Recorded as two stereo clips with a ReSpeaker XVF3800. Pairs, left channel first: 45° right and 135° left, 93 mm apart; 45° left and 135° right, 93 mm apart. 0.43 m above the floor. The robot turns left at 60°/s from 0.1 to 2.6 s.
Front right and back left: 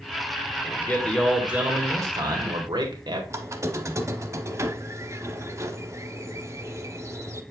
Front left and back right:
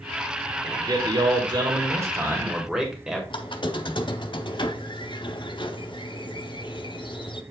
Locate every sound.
0.6 s a man speaking: 100° right, 1.7 m; by 3.2 s 140° left, 1.7 m
3.3 s a squeak: 75° left, 0.7 m